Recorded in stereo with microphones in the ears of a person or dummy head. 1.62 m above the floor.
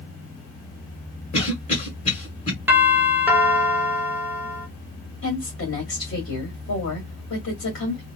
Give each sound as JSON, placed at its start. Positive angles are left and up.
{"t": 1.3, "sound": "a cough", "side_deg": 35, "distance_m": 1.4}
{"t": 2.7, "sound": "a doorbell", "side_deg": -10, "distance_m": 0.8}
{"t": 5.2, "sound": "a woman speaking", "side_deg": 60, "distance_m": 1.6}